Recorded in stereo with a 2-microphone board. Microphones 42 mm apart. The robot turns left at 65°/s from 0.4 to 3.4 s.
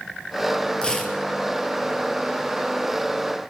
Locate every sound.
0.8 s tearing paper: 25° left (ahead or behind), 3 m; by 1.2 s 5° left (ahead or behind), 3 m